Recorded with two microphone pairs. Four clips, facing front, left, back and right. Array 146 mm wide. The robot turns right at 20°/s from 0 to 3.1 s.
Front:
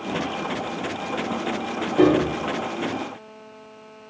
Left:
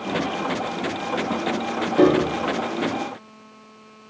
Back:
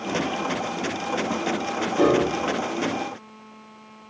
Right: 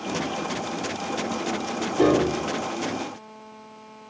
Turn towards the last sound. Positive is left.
turn(degrees=85)